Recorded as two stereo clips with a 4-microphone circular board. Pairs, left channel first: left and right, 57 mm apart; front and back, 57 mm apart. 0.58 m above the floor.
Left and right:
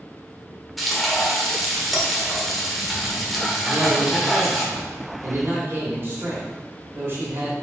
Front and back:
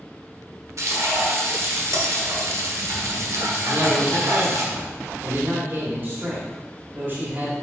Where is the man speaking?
135° right, 2.5 m.